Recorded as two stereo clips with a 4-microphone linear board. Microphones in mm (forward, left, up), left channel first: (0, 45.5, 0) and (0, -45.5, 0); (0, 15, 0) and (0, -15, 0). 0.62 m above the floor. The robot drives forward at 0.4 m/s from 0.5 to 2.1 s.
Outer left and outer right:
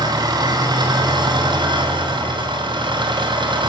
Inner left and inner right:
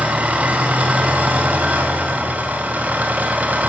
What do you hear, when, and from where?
0.0 s an engine running: 50° right (ahead or behind), 3 m; by 3.7 s 60° right (ahead or behind), 2.5 m